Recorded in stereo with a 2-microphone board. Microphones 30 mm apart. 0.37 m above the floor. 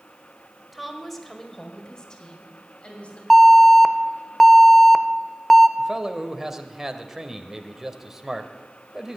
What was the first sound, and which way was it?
A woman speaking, 5° right (ahead or behind).